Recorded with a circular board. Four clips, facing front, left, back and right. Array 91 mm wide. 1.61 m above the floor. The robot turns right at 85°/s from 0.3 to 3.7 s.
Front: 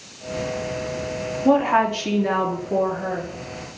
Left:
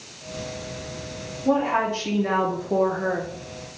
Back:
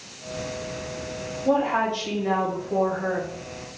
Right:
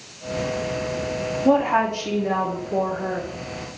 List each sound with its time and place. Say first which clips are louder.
1.4 s a woman speaking: right 3 dB, front 4 dB; 45° right, 0.9 m; by 3.3 s 110° left, 0.9 m